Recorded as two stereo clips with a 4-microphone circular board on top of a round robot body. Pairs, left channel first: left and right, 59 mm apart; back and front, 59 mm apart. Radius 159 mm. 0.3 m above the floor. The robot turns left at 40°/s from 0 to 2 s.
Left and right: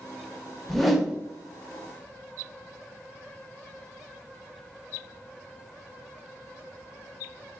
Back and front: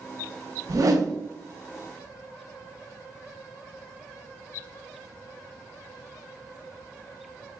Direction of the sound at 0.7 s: 10° left.